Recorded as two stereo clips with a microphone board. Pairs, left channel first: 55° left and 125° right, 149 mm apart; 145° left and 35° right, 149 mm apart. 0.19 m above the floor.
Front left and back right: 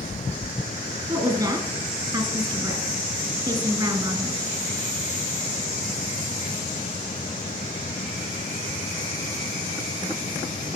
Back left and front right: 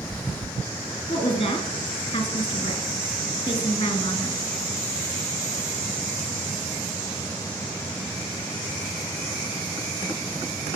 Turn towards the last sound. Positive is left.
turn(degrees=-175)